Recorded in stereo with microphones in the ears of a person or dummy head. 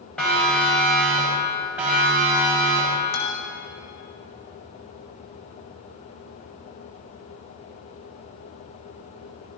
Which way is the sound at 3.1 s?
60° left (ahead or behind).